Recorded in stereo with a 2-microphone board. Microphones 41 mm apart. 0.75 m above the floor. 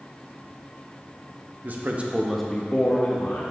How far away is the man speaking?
About 1.0 m.